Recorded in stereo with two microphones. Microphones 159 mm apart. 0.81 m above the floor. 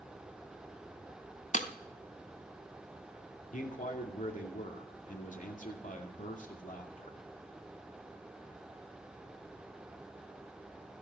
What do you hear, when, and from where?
1.5 s breaking glass: 50° left (ahead or behind), 0.9 m
3.5 s a man speaking: 55° left (ahead or behind), 2.5 m